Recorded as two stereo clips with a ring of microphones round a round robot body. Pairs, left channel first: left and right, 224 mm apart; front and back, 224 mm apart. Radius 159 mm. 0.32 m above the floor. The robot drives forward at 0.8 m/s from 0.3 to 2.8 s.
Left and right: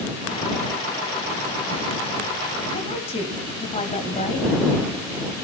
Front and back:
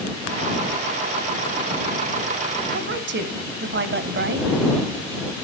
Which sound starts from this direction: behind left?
A woman speaking, at 2.7 s.